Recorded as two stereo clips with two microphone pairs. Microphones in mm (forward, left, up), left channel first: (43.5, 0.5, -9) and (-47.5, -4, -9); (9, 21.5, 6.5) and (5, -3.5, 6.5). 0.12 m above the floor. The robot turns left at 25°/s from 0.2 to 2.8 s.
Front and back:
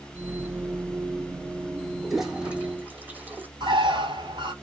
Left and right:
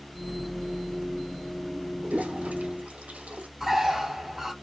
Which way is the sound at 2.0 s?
85° right.